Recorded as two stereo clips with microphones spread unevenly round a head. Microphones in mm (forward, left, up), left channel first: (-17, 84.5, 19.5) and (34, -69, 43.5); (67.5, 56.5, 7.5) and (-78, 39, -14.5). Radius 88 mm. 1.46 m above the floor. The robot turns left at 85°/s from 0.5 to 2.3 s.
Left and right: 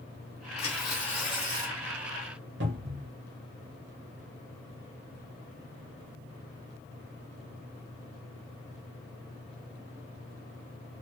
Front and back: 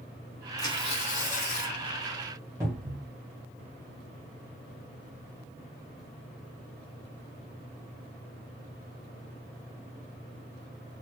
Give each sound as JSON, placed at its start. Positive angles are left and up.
{"t": 0.6, "sound": "tearing paper", "azimuth_deg": 60, "distance_m": 1.8}
{"t": 2.6, "sound": "a cupboard door", "azimuth_deg": -95, "distance_m": 1.1}